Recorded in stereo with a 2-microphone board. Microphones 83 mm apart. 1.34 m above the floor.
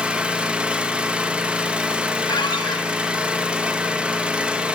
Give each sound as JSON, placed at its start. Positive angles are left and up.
{"t": 0.0, "sound": "an engine running", "side_deg": -15, "distance_m": 1.6}
{"t": 2.3, "sound": "a squeak", "side_deg": 65, "distance_m": 2.0}